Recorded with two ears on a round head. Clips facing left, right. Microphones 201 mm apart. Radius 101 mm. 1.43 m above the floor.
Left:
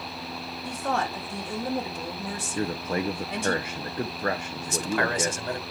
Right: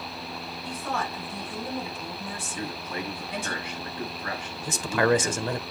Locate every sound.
0.7 s a woman speaking: 60° left (ahead or behind), 3 m
2.5 s a man speaking: 40° left (ahead or behind), 0.9 m
4.7 s a man speaking: 65° right (ahead or behind), 1.1 m